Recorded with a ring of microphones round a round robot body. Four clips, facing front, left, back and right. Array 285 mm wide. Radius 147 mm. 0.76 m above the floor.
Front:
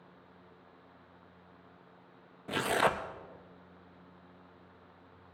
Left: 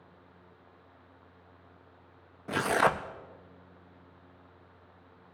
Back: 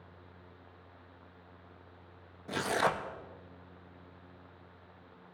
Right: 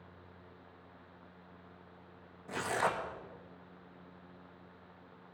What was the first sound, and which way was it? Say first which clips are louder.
Tearing paper: left 7 dB, front 1 dB; 75° left.